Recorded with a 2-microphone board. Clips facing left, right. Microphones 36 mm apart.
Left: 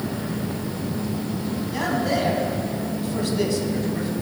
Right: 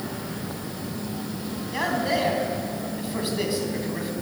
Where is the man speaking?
15° right (ahead or behind), 1.5 m.